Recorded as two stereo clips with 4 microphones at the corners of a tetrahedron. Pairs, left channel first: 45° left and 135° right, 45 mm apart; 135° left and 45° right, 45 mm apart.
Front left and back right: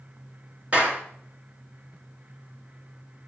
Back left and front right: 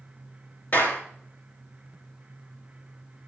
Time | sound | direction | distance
0.7 | a clap | 170° left | 2.5 m